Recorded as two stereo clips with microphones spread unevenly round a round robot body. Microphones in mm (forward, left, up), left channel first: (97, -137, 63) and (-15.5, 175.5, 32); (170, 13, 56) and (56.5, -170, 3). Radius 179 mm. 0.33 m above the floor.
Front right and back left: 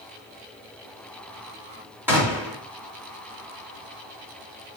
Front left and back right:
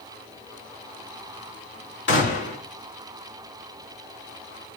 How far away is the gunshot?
About 2.5 m.